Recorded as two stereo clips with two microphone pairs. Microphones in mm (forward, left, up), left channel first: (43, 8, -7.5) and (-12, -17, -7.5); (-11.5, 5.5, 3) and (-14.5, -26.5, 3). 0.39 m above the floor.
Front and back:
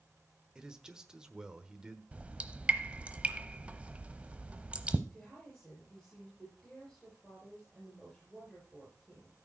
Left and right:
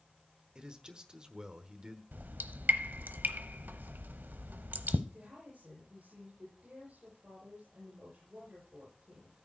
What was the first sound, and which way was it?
A man speaking, 105° right.